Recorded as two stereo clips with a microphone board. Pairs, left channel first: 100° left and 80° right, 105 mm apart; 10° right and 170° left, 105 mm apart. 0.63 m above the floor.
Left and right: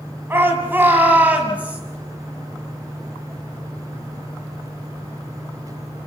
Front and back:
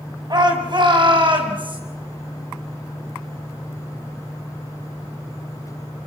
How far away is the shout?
About 5.5 m.